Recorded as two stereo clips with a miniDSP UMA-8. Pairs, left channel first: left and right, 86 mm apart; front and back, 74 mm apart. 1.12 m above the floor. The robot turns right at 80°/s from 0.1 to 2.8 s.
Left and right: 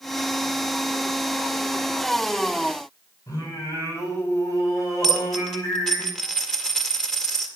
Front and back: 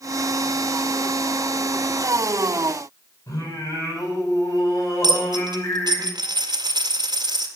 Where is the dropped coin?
175° left, 1.9 m.